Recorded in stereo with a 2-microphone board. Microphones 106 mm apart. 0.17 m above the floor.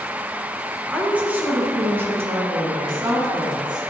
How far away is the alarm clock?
No alarm clock in this recording.